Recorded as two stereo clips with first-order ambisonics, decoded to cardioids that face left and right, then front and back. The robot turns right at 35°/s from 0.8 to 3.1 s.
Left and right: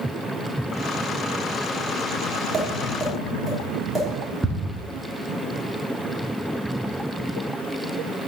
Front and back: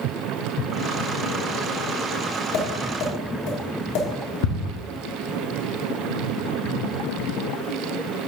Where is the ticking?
5° right, 1.2 m.